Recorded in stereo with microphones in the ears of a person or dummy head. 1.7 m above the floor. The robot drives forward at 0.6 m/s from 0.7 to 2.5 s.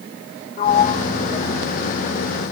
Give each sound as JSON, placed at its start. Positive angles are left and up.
{"t": 0.6, "sound": "a sliding door", "side_deg": 45}